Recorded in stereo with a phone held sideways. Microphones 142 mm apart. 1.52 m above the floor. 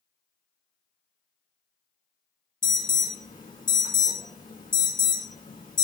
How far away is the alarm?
About 2.5 m.